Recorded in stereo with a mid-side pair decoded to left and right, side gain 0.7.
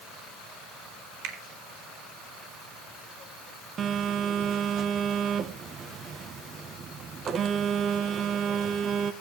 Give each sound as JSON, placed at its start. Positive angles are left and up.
{"t": 1.2, "sound": "a finger snap", "azimuth_deg": -65, "distance_m": 3.5}
{"t": 3.8, "sound": "a phone buzzing", "azimuth_deg": -35, "distance_m": 1.4}